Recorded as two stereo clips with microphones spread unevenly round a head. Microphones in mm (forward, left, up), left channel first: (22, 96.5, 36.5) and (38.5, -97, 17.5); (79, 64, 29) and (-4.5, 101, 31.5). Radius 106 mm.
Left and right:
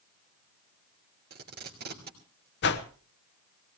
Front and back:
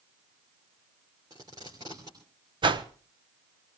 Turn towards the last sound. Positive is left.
turn(degrees=130)